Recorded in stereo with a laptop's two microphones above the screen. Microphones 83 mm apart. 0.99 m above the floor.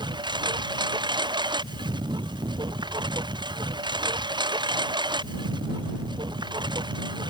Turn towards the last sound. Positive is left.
turn(degrees=-65)  # may be behind; listen again after turning